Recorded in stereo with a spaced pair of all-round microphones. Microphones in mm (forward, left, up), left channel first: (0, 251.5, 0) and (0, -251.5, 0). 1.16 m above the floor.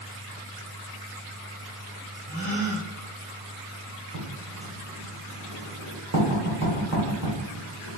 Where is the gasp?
35° right (ahead or behind), 1.2 m.